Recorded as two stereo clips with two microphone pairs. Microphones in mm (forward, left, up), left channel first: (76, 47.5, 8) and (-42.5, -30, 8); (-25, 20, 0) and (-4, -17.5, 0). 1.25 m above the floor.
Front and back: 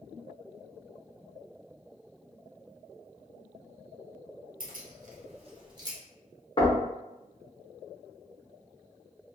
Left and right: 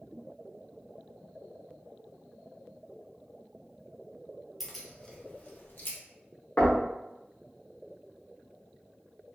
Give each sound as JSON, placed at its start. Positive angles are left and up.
{"t": 4.6, "sound": "keys jangling", "azimuth_deg": -150, "distance_m": 0.7}
{"t": 6.6, "sound": "knocking", "azimuth_deg": 75, "distance_m": 0.7}